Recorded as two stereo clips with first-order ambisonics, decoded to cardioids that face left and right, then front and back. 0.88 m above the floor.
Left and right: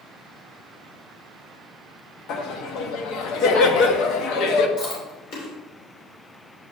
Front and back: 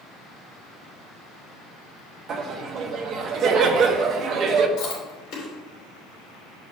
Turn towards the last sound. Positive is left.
turn(degrees=45)